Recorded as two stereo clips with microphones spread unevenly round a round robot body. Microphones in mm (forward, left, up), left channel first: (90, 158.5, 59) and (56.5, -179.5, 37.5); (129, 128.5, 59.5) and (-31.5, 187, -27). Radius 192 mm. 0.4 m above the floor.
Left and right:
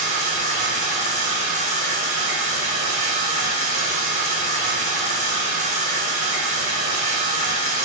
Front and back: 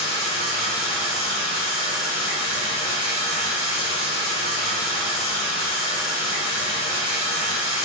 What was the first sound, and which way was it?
Running water, 30° right.